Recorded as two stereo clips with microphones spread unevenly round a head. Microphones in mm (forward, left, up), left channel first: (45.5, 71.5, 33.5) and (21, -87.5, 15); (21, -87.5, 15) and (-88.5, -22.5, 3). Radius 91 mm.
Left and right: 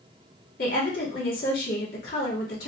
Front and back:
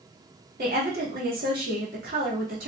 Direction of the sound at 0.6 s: 125° left.